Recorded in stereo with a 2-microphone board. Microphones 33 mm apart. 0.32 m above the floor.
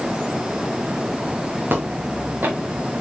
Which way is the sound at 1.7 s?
80° right.